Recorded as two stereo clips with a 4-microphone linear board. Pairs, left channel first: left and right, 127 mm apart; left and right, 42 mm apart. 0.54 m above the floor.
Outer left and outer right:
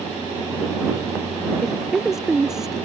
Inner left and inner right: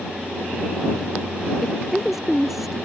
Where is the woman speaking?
5° right (ahead or behind).